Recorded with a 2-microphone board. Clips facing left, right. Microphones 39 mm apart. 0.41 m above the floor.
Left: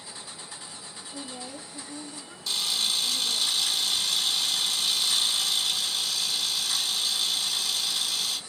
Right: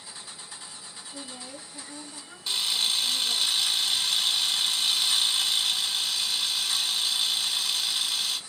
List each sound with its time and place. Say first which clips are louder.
1.1 s a woman speaking: left 3 dB; 15° right (ahead or behind), 2 m
2.5 s a camera shutter: right 1 dB; 35° right (ahead or behind), 0.8 m